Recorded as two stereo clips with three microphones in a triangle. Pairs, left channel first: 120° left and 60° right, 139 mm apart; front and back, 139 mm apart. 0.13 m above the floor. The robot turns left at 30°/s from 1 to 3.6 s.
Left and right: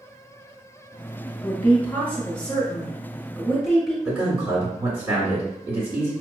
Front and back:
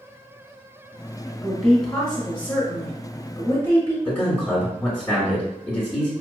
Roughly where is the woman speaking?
Left.